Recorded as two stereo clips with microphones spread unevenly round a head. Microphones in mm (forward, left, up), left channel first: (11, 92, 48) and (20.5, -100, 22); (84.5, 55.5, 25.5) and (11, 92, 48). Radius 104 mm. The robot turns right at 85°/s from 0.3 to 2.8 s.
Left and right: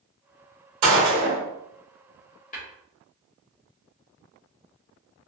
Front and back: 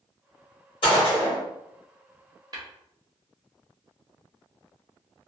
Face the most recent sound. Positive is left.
turn(degrees=160)